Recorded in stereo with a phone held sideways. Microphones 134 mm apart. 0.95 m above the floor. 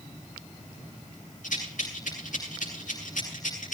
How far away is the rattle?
About 8 m.